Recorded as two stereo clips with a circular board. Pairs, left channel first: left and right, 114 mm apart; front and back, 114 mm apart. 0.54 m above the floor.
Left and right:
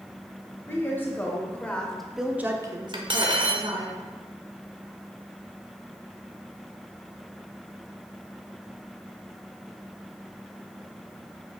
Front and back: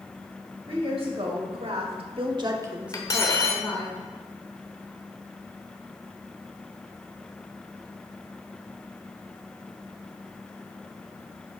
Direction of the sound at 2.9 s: 55° right.